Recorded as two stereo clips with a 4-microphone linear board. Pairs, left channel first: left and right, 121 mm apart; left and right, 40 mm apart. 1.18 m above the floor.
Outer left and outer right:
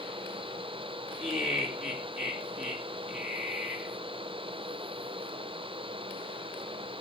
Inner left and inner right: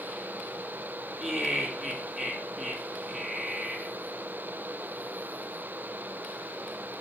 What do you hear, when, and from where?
1.2 s laughter: 5° right (ahead or behind), 2.5 m